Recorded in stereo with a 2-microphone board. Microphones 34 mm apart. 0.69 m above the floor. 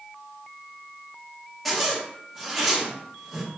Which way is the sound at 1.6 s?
Centre (ahead or behind).